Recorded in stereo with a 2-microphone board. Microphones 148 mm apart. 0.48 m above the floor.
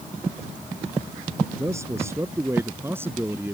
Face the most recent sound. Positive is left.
turn(degrees=-15)  # may be behind; listen again after turning